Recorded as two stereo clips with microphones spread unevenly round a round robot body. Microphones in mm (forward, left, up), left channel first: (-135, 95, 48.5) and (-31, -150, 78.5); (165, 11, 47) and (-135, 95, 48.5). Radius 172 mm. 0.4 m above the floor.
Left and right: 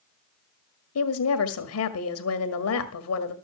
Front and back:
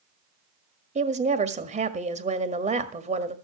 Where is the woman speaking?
100° left, 1.7 m.